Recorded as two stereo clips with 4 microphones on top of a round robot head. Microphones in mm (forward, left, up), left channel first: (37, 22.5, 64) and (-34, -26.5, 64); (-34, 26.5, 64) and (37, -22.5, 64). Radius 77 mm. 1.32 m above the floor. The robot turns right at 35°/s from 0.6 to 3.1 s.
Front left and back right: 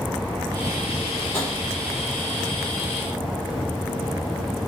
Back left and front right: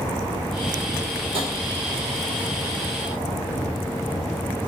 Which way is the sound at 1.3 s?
45° right.